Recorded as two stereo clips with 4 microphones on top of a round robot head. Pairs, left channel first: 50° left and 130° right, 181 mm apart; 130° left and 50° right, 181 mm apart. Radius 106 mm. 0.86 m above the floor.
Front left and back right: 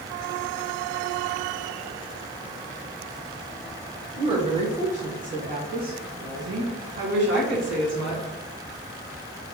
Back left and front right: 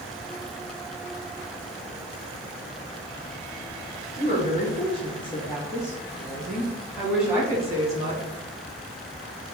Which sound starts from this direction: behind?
A woman speaking, at 4.2 s.